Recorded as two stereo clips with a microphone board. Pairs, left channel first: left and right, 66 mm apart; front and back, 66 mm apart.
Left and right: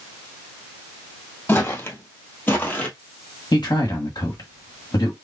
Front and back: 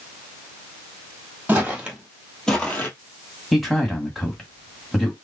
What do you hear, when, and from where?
1.5 s footsteps: 130° left, 1.6 m; by 2.9 s 40° left, 1.4 m
3.5 s a man speaking: 90° left, 1.4 m